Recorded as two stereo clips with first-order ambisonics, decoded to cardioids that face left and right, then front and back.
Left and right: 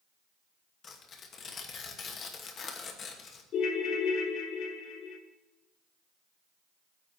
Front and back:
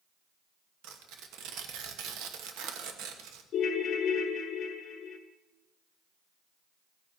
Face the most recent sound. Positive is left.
turn(degrees=55)